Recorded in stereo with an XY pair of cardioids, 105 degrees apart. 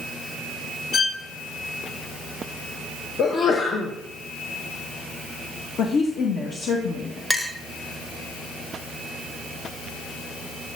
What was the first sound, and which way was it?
A violin, 45° left.